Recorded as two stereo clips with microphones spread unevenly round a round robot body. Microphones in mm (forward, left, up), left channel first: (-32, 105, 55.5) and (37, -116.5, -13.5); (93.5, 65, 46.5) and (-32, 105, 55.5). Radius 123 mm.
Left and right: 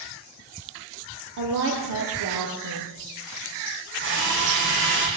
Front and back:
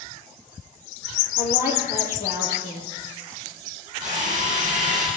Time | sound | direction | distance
1.4 | a woman speaking | 55° right | 8.5 m
4.0 | a drill | 110° right | 8.5 m